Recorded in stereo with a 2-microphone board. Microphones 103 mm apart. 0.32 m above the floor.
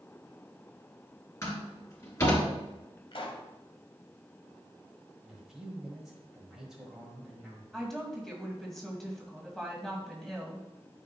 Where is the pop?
55° left (ahead or behind), 1.1 m.